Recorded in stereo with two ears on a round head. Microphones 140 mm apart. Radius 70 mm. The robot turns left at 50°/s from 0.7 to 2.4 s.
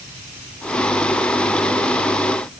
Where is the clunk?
I don't hear a clunk.